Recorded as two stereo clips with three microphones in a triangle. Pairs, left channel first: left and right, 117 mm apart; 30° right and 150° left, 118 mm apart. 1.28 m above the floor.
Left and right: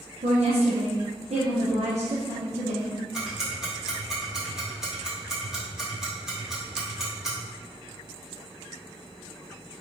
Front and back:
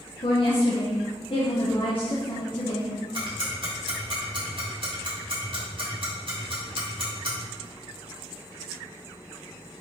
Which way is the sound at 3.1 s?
175° right.